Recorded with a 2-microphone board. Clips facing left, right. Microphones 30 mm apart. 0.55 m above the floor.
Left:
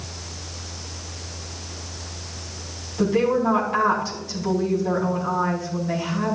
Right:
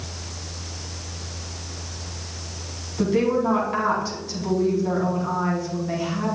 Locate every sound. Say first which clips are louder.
3.0 s a woman speaking: left 1 dB; centre (ahead or behind), 4 m